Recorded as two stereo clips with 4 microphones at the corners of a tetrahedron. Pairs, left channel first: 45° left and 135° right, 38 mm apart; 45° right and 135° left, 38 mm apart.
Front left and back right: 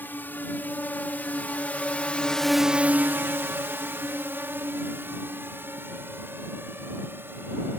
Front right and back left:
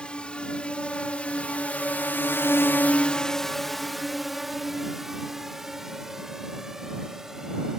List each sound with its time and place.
0.0 s a drone: 15° left; by 7.8 s 150° right